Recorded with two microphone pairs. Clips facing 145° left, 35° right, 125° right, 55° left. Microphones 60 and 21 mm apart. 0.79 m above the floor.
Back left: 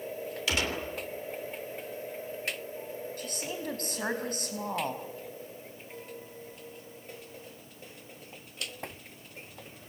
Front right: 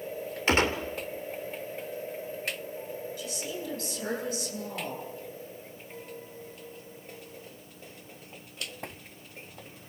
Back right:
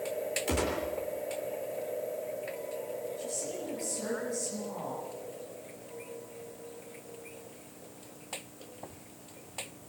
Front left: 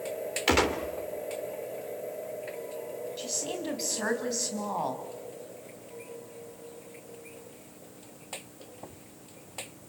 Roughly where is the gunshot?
Ahead.